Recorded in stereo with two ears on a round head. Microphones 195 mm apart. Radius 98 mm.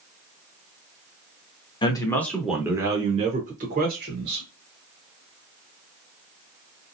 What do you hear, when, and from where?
1.8 s a man speaking: 20° left (ahead or behind), 0.9 m; by 4.5 s 55° right (ahead or behind), 1.4 m